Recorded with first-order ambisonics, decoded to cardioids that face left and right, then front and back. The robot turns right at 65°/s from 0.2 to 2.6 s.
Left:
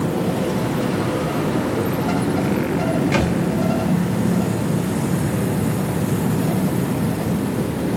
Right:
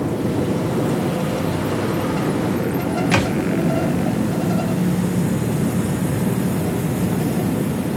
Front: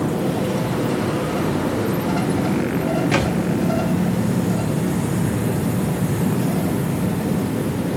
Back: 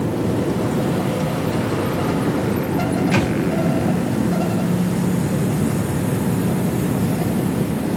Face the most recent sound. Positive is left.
turn(degrees=-80)